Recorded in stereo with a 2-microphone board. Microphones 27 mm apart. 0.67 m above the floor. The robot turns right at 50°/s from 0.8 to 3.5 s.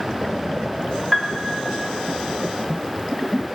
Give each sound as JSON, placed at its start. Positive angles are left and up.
{"t": 1.1, "sound": "a piano", "side_deg": 0, "distance_m": 1.1}